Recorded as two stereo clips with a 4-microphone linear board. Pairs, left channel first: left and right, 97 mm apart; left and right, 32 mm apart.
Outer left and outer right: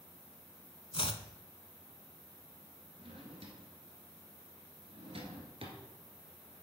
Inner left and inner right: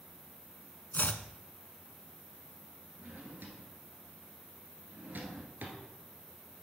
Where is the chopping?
65° left (ahead or behind), 0.5 m.